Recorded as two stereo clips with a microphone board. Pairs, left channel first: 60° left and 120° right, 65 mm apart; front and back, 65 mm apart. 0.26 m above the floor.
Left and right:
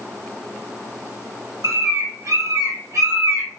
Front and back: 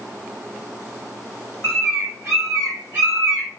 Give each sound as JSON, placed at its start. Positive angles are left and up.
{"t": 1.6, "sound": "a bird", "azimuth_deg": -135, "distance_m": 3.0}